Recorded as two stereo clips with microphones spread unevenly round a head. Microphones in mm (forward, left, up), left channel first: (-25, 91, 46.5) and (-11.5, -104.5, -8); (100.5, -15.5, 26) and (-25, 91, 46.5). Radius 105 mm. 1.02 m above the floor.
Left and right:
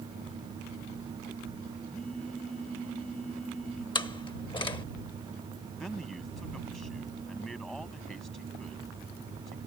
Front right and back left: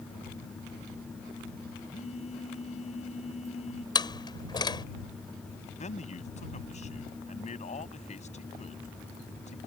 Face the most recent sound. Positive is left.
turn(degrees=5)